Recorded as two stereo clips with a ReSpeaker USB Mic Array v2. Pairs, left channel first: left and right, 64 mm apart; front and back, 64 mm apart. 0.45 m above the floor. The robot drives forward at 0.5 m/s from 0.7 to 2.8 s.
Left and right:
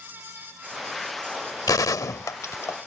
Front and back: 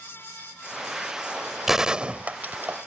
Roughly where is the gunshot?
Left.